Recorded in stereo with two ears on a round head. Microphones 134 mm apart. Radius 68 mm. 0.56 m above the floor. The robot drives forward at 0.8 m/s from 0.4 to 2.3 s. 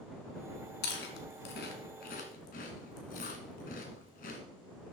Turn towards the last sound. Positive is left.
turn(degrees=70)  # may be behind; listen again after turning